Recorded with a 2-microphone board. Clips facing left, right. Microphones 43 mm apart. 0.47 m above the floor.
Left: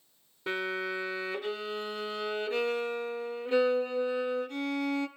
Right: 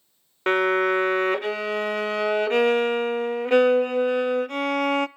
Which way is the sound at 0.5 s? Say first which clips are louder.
Right 13 dB; 65° right (ahead or behind).